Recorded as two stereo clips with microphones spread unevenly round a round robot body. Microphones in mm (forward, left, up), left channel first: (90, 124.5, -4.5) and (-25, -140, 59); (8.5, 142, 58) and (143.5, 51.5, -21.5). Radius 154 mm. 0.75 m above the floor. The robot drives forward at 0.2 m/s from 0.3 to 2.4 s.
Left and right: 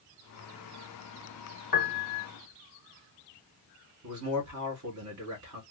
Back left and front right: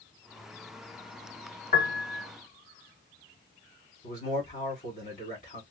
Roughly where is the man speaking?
Behind right.